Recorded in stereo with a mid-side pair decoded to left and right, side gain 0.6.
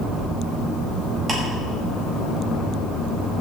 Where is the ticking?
25° right, 5 m.